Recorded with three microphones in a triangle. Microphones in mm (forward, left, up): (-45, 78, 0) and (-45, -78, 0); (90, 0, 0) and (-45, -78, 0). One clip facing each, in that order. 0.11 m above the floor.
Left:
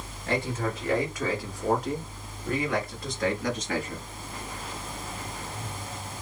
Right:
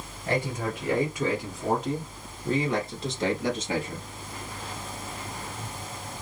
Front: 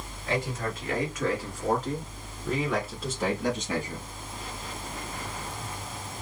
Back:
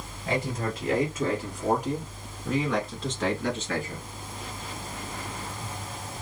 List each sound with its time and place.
0.3 s a man speaking: 165° right, 1.4 m; by 4.1 s 35° right, 1.7 m